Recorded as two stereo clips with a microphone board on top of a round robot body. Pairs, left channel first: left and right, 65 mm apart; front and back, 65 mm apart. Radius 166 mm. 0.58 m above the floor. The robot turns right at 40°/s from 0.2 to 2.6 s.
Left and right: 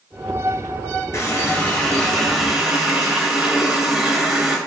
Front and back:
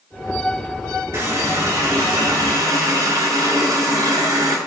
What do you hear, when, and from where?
1.1 s a running tap: 135° left, 6 m; by 4.6 s 170° right, 6 m